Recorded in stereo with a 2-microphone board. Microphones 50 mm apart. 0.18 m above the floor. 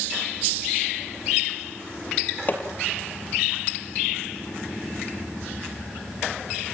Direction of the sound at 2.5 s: 35° left (ahead or behind).